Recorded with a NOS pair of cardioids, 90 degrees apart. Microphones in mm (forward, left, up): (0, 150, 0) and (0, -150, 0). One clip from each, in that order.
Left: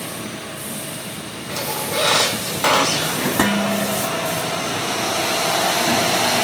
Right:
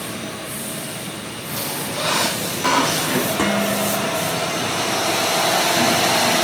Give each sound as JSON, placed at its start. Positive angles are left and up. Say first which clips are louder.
{"t": 1.5, "sound": "a squeak", "louder": "left 3 dB", "azimuth_deg": 65, "distance_m": 4.0}
{"t": 3.4, "sound": "dishes clattering", "louder": "even", "azimuth_deg": 55, "distance_m": 3.0}